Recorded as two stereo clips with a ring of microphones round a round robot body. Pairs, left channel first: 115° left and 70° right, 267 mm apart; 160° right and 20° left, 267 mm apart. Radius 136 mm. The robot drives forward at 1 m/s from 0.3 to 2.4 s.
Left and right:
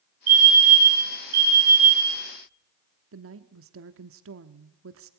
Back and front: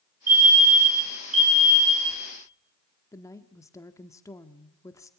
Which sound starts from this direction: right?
A woman speaking, at 3.1 s.